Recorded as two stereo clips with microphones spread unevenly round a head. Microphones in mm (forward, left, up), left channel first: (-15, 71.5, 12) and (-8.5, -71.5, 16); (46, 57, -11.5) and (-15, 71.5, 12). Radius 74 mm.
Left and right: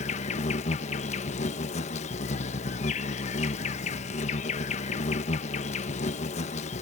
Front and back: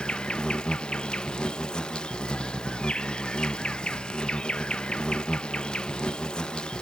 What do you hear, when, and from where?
0.0 s an insect: 50° left